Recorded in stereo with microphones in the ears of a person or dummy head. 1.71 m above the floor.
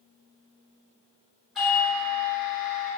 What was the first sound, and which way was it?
A doorbell, centre (ahead or behind).